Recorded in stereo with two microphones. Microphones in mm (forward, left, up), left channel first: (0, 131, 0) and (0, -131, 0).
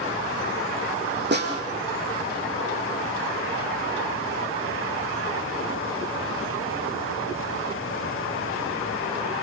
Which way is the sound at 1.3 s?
45° right (ahead or behind).